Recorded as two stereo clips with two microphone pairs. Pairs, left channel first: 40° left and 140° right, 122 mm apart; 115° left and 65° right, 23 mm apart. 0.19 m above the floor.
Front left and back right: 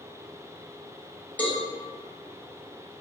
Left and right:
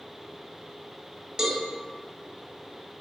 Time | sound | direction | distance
1.4 | a cowbell | 20° right | 0.6 m